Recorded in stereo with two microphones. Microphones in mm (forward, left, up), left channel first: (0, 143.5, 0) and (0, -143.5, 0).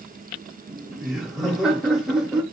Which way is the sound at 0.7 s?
Centre (ahead or behind).